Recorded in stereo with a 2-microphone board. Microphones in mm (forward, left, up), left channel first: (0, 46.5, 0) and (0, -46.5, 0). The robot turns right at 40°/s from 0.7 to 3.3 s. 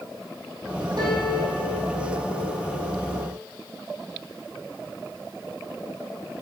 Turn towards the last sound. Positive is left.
turn(degrees=-40)